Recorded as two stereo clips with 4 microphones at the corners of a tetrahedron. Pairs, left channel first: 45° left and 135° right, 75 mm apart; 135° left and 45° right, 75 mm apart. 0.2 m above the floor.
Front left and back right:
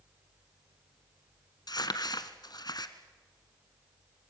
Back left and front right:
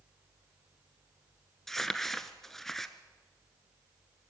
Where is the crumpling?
50° left, 1.2 m.